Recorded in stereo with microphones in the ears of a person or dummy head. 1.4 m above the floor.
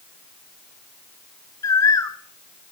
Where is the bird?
20° left (ahead or behind), 0.7 m.